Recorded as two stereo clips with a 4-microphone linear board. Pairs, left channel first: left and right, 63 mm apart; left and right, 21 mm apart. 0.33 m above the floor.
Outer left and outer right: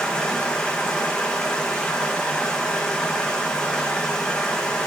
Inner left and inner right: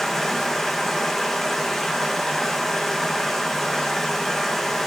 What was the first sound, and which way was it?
Running water, 15° left (ahead or behind).